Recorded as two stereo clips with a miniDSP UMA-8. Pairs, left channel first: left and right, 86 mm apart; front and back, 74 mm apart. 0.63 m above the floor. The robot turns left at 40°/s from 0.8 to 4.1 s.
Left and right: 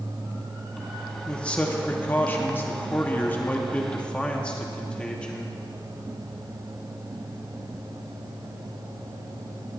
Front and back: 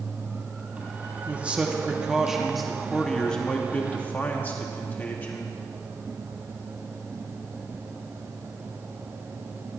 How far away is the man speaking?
About 0.9 m.